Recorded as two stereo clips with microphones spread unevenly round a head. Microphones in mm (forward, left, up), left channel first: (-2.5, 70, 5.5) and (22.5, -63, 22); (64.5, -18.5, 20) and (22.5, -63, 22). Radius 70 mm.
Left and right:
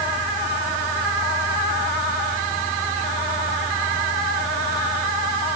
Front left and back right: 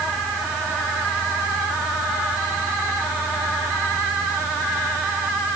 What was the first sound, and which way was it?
Only background noise.